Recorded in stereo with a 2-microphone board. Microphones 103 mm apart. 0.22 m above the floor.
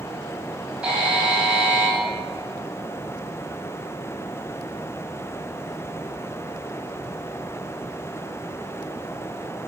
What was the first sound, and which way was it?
A buzzer, 10° right (ahead or behind).